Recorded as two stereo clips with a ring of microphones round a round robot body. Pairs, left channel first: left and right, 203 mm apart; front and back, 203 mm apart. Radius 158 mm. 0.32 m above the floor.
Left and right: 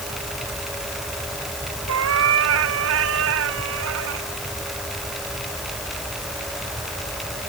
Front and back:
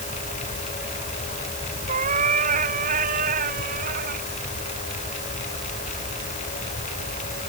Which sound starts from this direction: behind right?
A cat meowing, at 1.9 s.